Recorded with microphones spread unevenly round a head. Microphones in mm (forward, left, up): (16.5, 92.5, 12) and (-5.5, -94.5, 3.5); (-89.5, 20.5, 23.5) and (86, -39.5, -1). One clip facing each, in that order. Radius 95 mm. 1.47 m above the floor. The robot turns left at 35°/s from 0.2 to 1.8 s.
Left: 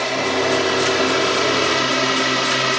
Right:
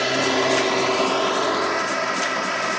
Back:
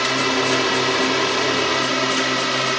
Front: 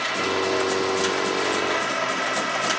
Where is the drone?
175° right; by 2.8 s 125° left.